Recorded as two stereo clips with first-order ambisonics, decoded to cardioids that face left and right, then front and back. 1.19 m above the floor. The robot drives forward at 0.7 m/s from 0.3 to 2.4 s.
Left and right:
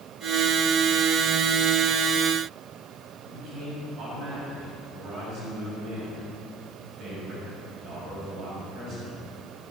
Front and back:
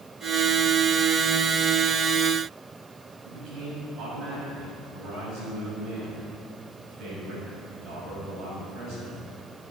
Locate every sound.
3.2 s a man speaking: 130° right, 5 m